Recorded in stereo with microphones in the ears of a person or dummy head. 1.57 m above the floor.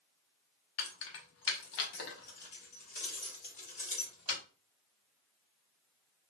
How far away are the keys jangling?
About 1.0 m.